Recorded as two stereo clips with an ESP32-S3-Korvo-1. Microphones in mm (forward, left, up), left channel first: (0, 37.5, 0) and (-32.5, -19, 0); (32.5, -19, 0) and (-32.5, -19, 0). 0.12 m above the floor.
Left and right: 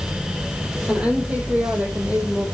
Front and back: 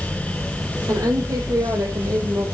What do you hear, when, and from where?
0.9 s a woman speaking: 165° left, 4.5 m; by 2.5 s straight behind, 4.5 m